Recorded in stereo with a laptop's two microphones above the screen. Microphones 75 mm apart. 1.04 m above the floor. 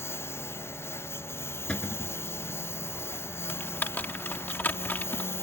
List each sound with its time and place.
0.0 s a lawn mower: 30° left (ahead or behind)
1.7 s a cupboard door: 15° left (ahead or behind)
3.5 s typing on a keyboard: 25° left (ahead or behind)